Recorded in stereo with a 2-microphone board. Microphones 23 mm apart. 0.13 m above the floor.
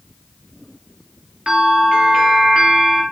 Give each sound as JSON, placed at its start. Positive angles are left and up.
{"t": 1.5, "sound": "a bell", "side_deg": -40, "distance_m": 2.0}